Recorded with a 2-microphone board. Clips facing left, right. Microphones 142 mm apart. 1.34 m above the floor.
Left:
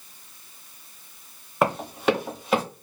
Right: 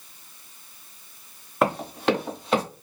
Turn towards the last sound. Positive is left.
turn(degrees=5)  # may be behind; listen again after turning